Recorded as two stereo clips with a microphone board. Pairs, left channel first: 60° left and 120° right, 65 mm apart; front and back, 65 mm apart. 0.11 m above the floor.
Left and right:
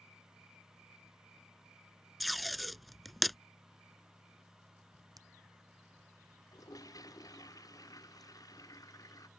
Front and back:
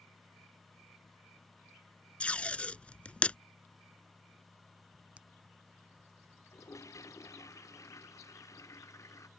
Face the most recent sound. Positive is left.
turn(degrees=35)